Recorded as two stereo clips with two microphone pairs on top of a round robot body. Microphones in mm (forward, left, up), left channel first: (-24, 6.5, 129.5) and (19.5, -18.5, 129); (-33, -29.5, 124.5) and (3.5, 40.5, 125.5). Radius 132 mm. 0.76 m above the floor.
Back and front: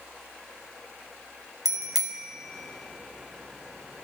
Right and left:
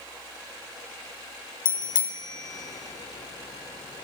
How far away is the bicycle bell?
About 2.5 m.